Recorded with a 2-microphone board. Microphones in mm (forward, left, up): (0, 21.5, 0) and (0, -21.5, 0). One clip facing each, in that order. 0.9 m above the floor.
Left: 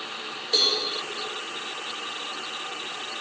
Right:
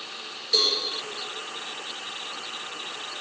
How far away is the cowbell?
About 1.7 m.